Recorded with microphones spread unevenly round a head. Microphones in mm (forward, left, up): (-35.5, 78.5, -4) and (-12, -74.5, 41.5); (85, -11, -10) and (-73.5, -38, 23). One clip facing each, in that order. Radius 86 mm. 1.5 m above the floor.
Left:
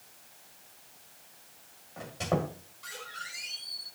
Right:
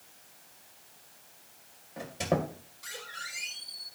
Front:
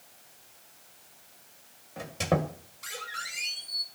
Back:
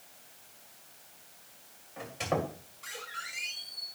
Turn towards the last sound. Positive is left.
turn(degrees=-25)